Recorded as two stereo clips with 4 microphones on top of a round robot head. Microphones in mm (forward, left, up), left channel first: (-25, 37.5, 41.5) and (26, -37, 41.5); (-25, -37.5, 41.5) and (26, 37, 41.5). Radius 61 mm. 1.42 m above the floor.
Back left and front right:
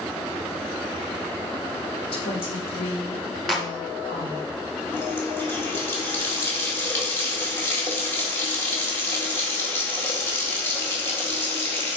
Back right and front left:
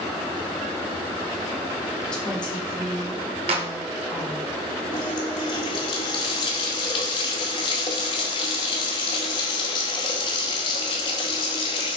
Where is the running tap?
170° right, 1.9 m.